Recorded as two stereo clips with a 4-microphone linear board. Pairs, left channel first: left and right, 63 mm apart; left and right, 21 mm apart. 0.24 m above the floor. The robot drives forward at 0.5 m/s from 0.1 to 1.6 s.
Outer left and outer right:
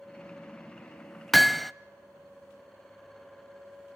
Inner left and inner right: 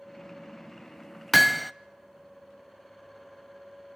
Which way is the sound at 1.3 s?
Centre (ahead or behind).